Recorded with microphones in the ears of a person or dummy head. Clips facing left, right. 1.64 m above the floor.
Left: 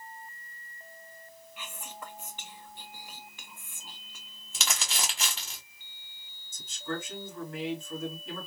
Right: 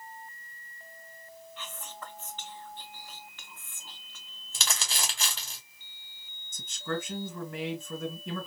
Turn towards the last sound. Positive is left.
turn(degrees=-55)  # may be behind; listen again after turning